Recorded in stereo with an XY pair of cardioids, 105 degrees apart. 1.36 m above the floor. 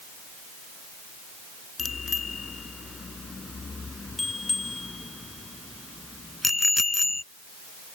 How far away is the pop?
No pop in this recording.